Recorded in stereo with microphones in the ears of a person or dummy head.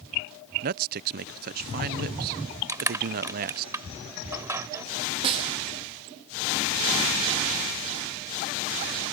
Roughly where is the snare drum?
Right.